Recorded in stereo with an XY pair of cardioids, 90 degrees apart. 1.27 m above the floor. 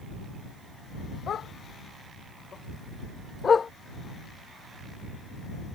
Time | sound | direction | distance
1.3 | a dog barking | 65° left | ?